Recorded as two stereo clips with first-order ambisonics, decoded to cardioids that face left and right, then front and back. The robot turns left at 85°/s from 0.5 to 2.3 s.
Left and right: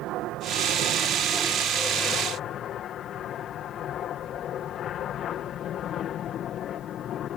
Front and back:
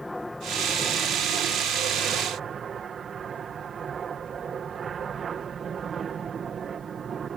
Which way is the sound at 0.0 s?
85° right.